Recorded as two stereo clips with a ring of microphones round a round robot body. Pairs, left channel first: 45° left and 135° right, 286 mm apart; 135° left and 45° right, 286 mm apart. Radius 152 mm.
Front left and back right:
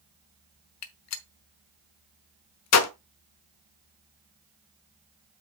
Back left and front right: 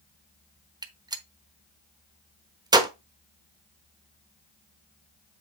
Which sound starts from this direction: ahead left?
A gunshot, at 0.8 s.